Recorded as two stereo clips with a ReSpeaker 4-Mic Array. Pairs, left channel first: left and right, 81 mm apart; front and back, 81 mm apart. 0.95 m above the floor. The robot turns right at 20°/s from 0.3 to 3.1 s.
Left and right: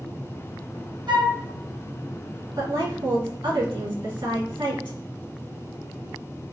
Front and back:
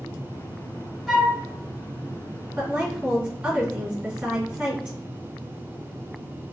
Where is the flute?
95° right, 1.0 m; by 1.4 s 90° right, 1.0 m.